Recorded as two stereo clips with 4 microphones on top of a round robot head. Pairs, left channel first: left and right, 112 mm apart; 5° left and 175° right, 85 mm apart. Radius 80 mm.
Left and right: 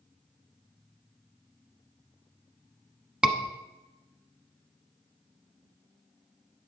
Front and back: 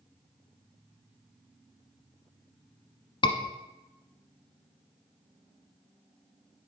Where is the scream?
5° right, 1.1 m.